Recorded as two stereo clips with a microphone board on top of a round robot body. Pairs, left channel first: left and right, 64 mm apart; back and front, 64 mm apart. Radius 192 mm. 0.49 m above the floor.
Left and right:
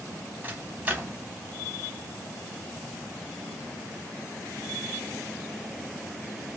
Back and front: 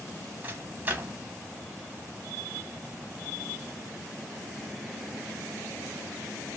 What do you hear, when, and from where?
0.4 s a microwave: 40° right, 1.1 m